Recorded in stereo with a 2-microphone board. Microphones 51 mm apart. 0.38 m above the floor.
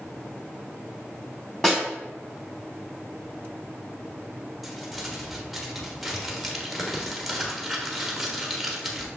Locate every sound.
1.6 s a snare drum: 10° left (ahead or behind), 2.5 m
4.6 s crumpling: centre (ahead or behind), 1.3 m